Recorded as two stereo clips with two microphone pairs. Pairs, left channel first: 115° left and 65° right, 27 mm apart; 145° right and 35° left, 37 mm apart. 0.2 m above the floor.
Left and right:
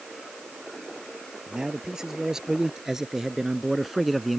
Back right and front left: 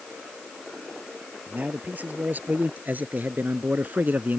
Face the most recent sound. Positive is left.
turn(degrees=30)